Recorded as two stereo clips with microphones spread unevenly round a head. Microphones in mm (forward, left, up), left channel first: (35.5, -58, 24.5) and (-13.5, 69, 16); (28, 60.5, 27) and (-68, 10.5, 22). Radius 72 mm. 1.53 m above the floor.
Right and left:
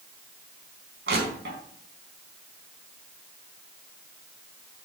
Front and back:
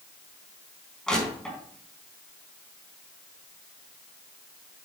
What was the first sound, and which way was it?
Crushing, 110° left.